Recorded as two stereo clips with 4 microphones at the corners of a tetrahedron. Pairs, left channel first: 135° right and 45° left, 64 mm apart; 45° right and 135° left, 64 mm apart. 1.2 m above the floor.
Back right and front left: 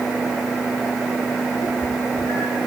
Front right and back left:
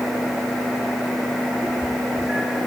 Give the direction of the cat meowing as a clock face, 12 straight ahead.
5 o'clock.